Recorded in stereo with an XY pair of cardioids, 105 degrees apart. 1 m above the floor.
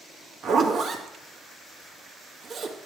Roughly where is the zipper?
Ahead right.